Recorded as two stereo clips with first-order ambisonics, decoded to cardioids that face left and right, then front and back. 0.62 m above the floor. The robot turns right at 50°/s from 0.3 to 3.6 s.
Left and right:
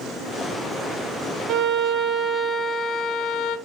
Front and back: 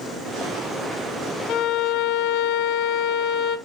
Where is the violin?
50° right, 0.7 m; by 3.6 s 50° left, 0.7 m.